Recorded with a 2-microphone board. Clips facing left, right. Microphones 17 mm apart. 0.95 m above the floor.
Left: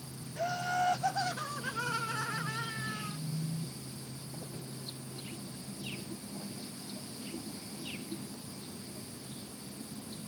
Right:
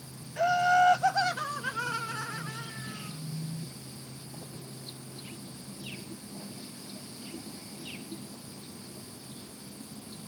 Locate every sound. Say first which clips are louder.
0.4 s laughter: right 9 dB; 55° right (ahead or behind); by 3.2 s 45° left (ahead or behind)